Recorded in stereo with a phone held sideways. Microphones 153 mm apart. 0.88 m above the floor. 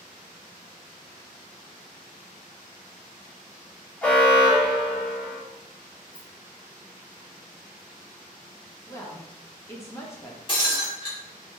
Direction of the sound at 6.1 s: 35° left (ahead or behind).